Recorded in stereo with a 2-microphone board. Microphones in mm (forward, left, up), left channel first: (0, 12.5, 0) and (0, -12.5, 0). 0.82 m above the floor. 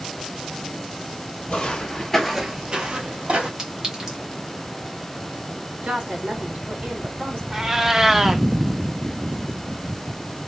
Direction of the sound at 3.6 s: 35° right (ahead or behind).